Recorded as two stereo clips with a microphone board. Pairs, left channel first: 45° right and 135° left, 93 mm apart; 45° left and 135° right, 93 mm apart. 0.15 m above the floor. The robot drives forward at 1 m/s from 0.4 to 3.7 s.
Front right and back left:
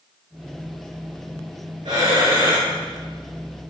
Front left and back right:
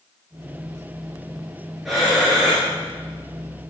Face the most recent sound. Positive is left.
turn(degrees=145)